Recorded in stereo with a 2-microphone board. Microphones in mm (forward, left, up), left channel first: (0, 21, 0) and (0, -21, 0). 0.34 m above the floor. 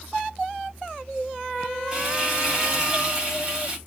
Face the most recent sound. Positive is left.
turn(degrees=-20)  # may be behind; listen again after turning